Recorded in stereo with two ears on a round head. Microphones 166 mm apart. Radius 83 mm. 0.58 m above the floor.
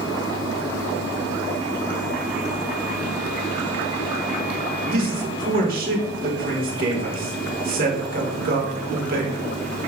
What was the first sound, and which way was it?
A man speaking, 45° right (ahead or behind).